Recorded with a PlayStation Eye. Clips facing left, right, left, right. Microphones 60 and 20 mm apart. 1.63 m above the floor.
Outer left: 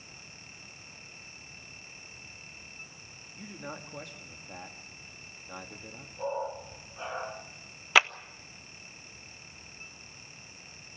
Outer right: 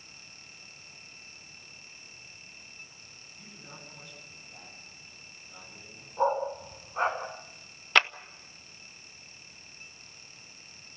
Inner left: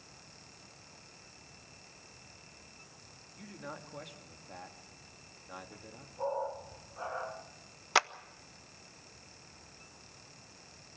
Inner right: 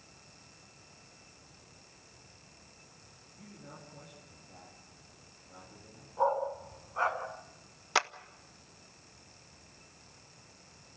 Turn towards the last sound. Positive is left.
turn(degrees=5)  # may be behind; listen again after turning